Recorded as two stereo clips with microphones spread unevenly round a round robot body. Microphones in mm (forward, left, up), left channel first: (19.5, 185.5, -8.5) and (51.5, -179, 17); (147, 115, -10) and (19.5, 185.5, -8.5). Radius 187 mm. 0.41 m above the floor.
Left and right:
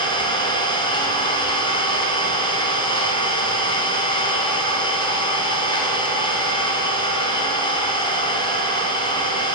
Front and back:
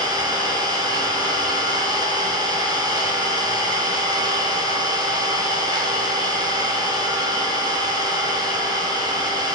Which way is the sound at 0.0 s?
150° left.